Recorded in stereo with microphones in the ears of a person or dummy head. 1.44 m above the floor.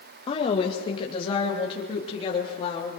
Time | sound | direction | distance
0.3 | a woman speaking | 30° left (ahead or behind) | 1.7 m